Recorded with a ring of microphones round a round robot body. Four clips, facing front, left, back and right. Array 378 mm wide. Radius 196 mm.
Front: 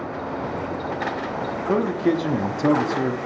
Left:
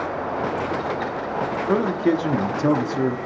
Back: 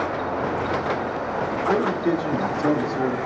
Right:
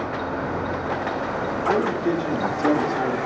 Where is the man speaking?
55° left, 0.8 m.